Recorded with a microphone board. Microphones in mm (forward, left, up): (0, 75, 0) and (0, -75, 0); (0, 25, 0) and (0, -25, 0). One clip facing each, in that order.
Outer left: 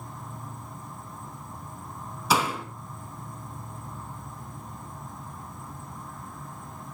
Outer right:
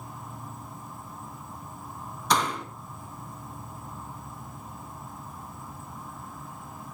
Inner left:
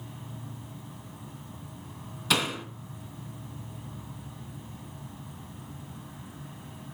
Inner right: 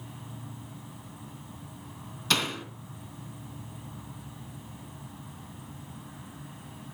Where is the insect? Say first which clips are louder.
Even, inner left 1 dB; 5° right (ahead or behind), 1.8 m.